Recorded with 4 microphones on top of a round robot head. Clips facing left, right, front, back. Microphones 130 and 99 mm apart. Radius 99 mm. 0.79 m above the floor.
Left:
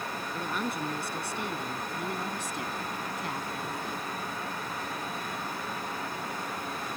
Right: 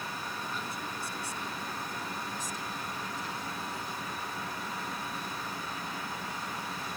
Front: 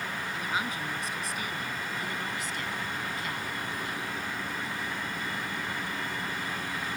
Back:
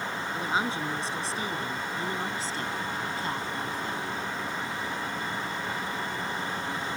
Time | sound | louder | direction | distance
0.3 | a woman speaking | left 6 dB, back 5 dB | 120° left | ?